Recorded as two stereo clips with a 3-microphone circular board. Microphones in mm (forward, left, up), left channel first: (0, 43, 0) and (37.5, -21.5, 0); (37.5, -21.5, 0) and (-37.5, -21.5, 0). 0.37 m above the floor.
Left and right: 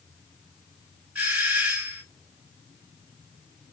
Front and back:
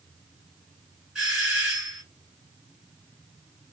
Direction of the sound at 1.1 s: 115° right.